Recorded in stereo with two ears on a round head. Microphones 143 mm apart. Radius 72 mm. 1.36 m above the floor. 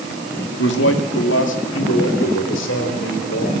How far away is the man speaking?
About 2 m.